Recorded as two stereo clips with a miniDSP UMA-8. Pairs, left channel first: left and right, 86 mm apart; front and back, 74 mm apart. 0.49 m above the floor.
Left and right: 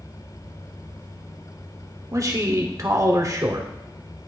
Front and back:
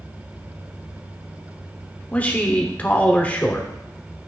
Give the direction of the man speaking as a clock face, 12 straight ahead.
2 o'clock.